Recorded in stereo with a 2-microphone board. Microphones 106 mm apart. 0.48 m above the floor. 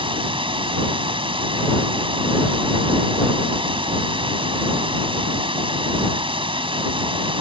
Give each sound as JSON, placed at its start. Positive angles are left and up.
{"t": 0.0, "sound": "running water", "side_deg": -55}